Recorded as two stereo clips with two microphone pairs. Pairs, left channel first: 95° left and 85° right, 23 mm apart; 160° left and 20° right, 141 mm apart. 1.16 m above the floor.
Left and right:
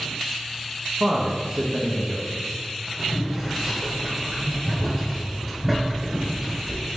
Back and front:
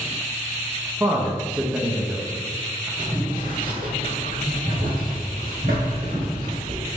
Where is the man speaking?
80° right, 0.5 m.